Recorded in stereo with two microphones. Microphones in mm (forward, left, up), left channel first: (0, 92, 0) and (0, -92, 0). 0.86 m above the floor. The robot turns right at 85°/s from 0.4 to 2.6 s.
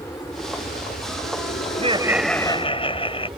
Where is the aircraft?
15° left; by 3.4 s 155° right.